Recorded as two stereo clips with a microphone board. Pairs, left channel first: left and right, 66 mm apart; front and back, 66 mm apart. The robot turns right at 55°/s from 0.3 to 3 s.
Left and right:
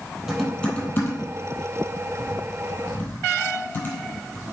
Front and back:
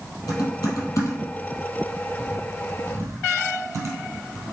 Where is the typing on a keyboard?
Straight ahead, 2.5 m; by 4.5 s 150° left, 2.5 m.